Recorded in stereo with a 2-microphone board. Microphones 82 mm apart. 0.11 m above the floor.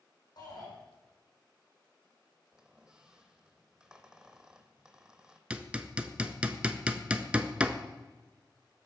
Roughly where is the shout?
Left.